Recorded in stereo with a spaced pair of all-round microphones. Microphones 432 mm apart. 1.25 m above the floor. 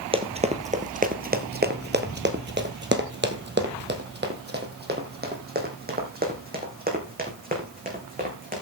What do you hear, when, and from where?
0.1 s running footsteps: 15° right (ahead or behind), 1.4 m; by 8.6 s 20° right (ahead or behind), 4.5 m